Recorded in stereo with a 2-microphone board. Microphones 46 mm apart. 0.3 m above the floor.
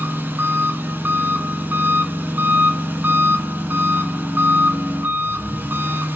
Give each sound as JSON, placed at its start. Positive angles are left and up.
{"t": 0.0, "sound": "an engine running", "side_deg": -40, "distance_m": 1.3}